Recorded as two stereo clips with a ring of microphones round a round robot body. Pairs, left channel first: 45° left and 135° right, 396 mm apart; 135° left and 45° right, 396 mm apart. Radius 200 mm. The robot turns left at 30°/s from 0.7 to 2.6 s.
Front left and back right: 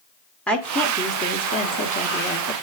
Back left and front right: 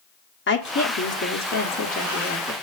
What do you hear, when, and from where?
0.5 s a woman speaking: 130° left, 1.1 m; by 2.5 s 75° left, 1.1 m